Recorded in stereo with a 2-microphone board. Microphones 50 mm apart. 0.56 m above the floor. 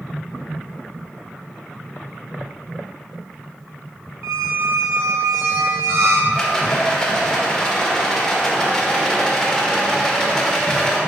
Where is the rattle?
15° left (ahead or behind), 1.5 m.